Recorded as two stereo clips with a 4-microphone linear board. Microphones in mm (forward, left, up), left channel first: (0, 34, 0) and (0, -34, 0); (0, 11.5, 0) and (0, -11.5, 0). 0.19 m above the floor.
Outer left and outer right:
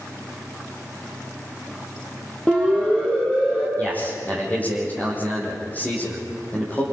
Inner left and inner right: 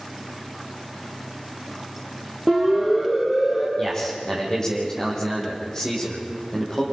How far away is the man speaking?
About 8 m.